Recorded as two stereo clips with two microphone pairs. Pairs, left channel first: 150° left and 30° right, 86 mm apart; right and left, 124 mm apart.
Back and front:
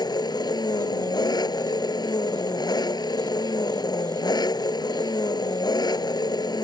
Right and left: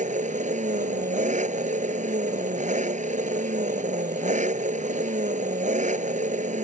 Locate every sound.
0.0 s an engine running: 110° left